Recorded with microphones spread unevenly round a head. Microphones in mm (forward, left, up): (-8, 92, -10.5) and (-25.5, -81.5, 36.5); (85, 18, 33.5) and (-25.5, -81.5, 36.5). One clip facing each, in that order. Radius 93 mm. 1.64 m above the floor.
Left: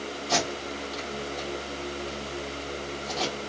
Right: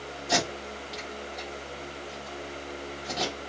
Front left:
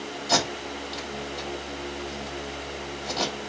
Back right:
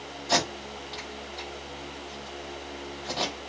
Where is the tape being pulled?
25° right, 2 m.